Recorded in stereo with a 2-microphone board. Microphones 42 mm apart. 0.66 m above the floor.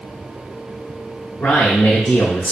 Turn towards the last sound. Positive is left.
turn(degrees=65)  # may be behind; listen again after turning